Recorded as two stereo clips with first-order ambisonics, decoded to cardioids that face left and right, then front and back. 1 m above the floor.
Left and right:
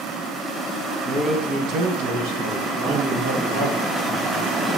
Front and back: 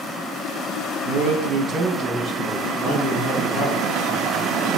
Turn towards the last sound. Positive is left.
turn(degrees=-85)